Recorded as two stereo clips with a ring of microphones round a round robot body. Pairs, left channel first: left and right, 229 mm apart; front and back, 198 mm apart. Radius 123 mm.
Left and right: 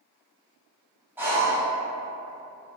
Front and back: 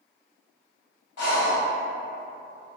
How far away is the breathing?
About 1.0 m.